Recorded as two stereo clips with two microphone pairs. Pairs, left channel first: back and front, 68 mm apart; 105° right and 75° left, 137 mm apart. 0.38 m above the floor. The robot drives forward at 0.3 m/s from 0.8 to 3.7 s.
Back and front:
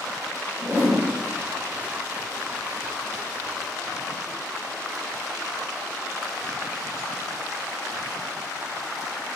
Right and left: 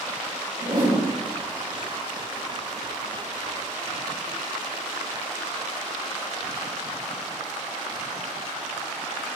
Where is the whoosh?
65° left, 3 m.